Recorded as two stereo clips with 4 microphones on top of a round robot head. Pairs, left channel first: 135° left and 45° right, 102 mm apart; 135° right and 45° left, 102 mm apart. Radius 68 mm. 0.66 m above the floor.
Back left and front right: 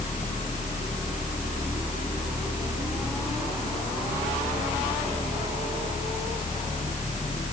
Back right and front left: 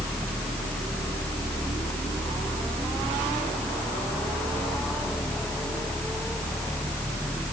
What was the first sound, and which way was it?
Only background noise.